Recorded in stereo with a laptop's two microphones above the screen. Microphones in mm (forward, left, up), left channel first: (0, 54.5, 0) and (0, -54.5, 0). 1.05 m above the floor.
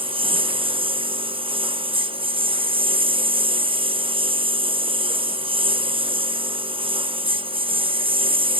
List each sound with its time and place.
0.0 s a lawn mower: 50° right (ahead or behind)